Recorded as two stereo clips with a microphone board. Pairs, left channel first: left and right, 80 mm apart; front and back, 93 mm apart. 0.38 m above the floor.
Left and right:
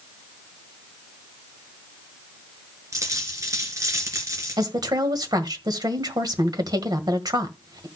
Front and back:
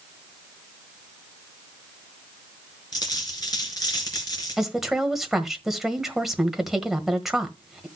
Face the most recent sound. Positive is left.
turn(degrees=-95)